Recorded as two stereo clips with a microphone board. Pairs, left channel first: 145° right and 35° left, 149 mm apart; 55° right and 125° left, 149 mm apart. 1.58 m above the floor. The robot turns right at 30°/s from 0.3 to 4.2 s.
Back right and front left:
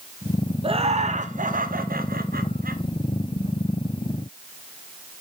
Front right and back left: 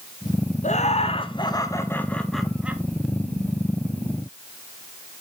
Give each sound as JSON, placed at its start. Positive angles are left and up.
{"t": 0.6, "sound": "laughter", "azimuth_deg": -20, "distance_m": 0.8}